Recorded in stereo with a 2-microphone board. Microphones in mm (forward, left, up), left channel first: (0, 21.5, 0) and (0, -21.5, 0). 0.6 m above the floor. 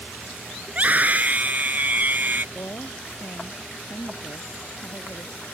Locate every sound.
0.7 s a scream: 35° right (ahead or behind); by 2.5 s 45° right (ahead or behind)
2.5 s a woman speaking: 60° left (ahead or behind)